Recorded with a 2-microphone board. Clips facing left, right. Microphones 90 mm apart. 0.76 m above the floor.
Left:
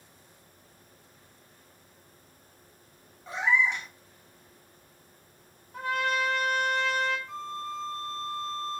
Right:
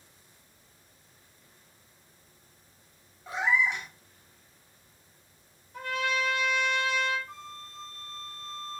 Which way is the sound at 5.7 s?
55° left (ahead or behind).